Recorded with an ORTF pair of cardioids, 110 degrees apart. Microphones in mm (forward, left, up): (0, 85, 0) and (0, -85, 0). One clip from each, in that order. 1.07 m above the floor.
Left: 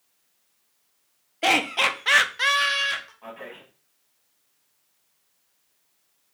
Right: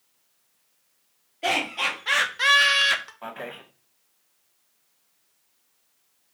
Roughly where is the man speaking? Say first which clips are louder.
Right 4 dB; ahead right.